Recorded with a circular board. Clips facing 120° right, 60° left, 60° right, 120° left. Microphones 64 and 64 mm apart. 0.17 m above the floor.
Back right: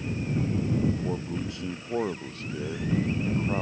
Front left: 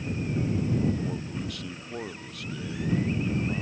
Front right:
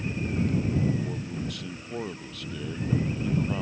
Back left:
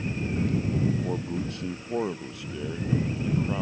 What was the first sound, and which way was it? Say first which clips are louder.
A man speaking: back right 2 dB, back left 3 dB; 175° left.